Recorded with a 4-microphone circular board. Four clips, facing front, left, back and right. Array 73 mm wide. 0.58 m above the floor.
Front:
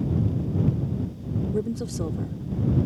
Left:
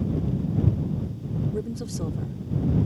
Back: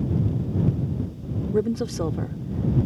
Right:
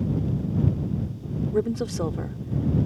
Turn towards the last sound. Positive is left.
turn(degrees=-130)